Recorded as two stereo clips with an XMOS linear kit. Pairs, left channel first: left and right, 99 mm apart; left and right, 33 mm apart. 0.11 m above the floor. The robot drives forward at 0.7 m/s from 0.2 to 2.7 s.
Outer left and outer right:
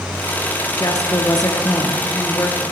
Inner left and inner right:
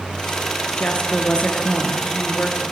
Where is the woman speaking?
40° left (ahead or behind), 1.5 m.